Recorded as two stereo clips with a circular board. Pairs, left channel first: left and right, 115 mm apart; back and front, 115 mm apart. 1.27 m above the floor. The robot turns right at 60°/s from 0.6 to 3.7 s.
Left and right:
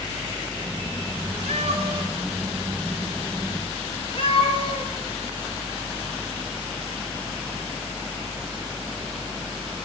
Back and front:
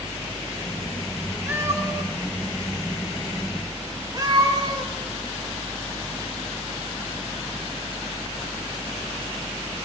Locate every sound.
1.5 s a cat meowing: 75° right, 6 m; by 4.9 s 60° left, 6 m